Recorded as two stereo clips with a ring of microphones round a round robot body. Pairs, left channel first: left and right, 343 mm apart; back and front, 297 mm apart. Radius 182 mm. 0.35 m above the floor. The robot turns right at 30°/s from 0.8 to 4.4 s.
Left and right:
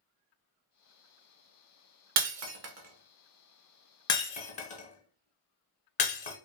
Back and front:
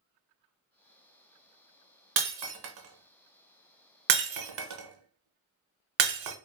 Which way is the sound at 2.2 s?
45° right.